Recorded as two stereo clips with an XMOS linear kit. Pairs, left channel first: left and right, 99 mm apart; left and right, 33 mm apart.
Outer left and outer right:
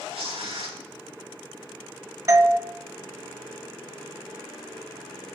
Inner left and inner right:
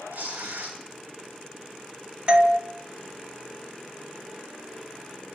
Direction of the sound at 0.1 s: 80° right.